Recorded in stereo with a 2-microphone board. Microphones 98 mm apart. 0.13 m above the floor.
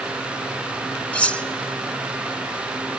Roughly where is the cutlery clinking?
Centre.